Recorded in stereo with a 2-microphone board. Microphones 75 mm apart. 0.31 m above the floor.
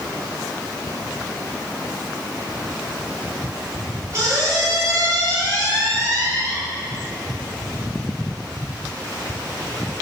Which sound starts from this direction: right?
A squeak, at 4.1 s.